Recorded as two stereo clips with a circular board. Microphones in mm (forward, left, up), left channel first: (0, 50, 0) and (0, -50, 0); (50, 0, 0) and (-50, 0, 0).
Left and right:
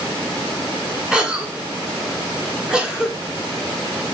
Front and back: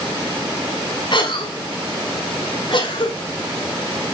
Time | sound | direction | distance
1.1 | a cough | 10° right | 1.7 m